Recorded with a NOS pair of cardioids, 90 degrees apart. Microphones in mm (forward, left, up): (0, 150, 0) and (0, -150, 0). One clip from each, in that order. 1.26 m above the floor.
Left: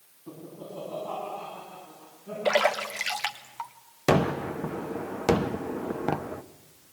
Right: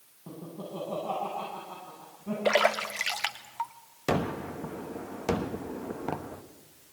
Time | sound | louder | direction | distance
0.3 | laughter | right 1 dB | 60° right | 9.5 m
2.5 | a splash | left 1 dB | 5° right | 1.7 m
4.1 | a gunshot | left 6 dB | 30° left | 1.0 m